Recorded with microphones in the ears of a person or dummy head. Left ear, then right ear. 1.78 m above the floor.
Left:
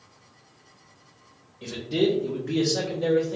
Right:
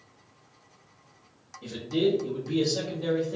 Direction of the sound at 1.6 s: 70° left (ahead or behind).